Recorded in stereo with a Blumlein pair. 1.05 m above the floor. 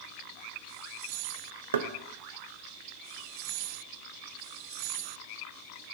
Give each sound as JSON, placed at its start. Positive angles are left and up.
{"t": 1.7, "sound": "knocking", "azimuth_deg": -65, "distance_m": 0.5}